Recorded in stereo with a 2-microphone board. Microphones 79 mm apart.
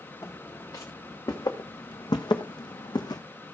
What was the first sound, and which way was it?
Footsteps, 35° left (ahead or behind).